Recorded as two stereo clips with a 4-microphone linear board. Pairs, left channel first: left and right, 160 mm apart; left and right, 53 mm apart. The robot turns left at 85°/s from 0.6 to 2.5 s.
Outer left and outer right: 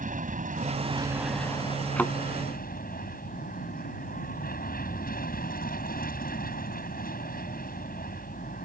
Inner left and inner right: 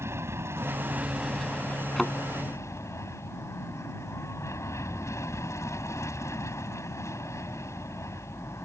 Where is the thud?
5° left (ahead or behind); by 2.1 s 25° left (ahead or behind).